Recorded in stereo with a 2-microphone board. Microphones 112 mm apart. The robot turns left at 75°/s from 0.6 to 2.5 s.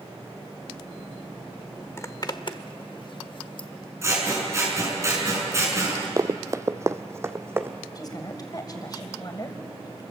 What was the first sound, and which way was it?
A zipper, 20° left (ahead or behind).